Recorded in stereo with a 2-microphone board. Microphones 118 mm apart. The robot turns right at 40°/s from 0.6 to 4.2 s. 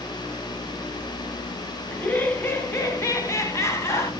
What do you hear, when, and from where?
1.9 s laughter: 10° left (ahead or behind), 1.4 m; by 4.1 s 20° left (ahead or behind), 1.4 m